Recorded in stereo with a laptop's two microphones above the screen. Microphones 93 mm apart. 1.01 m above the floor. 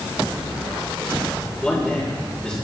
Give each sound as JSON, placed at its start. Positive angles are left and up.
{"t": 1.6, "sound": "a man speaking", "side_deg": 10, "distance_m": 4.5}